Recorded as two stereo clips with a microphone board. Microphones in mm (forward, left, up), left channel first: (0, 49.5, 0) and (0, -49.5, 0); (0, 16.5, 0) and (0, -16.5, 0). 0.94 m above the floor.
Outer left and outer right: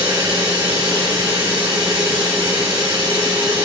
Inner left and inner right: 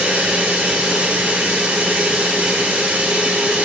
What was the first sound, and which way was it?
Running water, 50° right (ahead or behind).